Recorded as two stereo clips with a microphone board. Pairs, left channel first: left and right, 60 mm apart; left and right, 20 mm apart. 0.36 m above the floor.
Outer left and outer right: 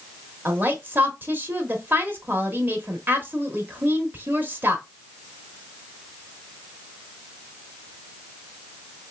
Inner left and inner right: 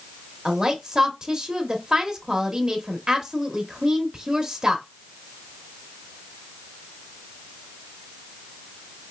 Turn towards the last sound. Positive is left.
turn(degrees=-35)  # may be behind; listen again after turning